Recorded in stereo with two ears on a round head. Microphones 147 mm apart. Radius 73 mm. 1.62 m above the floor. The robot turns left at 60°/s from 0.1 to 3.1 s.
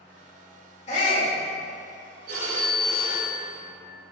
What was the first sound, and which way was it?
A shout, 40° left (ahead or behind).